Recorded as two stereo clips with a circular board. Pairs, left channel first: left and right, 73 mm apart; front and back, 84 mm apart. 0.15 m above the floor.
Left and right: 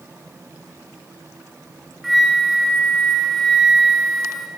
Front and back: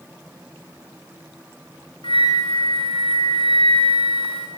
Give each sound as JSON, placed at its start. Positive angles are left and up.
{"t": 2.0, "sound": "a flute", "azimuth_deg": 0, "distance_m": 2.5}